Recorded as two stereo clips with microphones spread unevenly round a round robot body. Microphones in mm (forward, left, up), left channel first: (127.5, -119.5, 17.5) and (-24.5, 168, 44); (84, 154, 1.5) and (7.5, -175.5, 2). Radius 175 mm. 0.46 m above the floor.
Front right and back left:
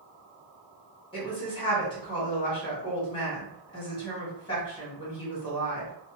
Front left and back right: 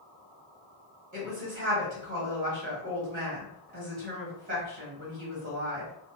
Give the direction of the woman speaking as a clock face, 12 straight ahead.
3 o'clock.